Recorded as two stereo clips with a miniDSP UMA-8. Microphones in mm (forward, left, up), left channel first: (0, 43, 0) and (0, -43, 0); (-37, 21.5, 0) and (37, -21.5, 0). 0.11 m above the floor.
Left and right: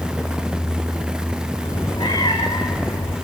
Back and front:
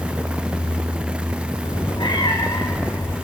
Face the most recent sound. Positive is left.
turn(degrees=95)